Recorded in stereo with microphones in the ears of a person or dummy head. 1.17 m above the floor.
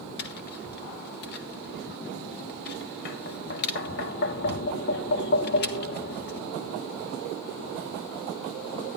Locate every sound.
0.2 s tapping: 50° left (ahead or behind), 0.6 m